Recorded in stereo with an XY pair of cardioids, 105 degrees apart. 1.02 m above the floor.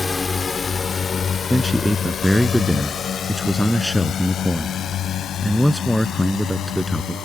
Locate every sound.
0.0 s a drone: 30° left; by 7.2 s 75° left
1.5 s a man speaking: 5° left